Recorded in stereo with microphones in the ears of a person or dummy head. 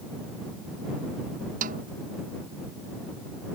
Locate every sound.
1.6 s a snare drum: 50° right (ahead or behind)